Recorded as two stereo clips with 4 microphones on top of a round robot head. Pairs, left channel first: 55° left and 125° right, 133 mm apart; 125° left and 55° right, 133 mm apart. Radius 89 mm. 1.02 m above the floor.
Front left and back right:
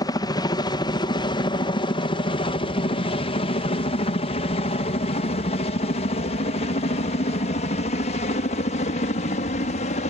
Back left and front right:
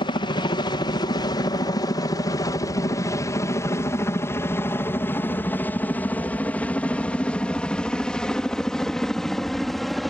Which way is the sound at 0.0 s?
100° left.